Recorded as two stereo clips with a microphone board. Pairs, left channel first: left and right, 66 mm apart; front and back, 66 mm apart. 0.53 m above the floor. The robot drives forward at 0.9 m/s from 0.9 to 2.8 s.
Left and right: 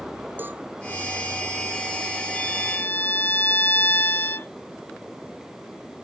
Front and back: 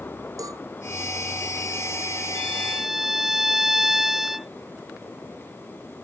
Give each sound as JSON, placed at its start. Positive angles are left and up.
{"t": 0.4, "sound": "a cowbell", "azimuth_deg": -150}
{"t": 2.4, "sound": "a violin", "azimuth_deg": 70}